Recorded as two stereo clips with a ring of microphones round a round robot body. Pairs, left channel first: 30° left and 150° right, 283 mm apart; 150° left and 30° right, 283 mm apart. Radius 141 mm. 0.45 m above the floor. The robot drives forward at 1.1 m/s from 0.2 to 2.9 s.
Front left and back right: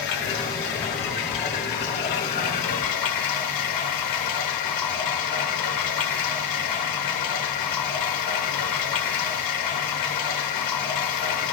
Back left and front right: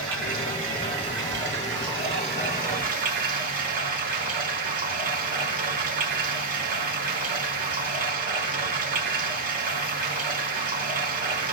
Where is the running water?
20° left, 6.5 m; by 11.5 s 30° left, 4 m.